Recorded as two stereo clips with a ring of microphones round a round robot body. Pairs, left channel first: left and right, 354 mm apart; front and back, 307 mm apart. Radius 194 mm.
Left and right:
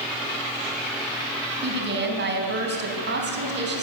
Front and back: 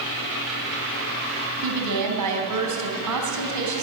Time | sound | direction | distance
1.6 | a woman speaking | 150° right | 4 m